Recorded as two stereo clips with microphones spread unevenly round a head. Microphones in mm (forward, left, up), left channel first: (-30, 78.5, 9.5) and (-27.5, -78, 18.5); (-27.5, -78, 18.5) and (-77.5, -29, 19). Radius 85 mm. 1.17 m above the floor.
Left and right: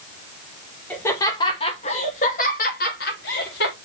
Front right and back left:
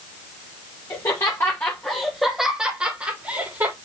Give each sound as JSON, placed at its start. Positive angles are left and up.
{"t": 0.9, "sound": "laughter", "azimuth_deg": 10, "distance_m": 1.8}